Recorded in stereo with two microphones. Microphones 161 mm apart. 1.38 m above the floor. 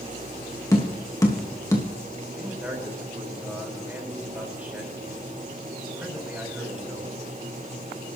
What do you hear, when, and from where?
0.7 s tapping: 20° left (ahead or behind), 2.5 m
2.4 s a man speaking: 10° right (ahead or behind), 6 m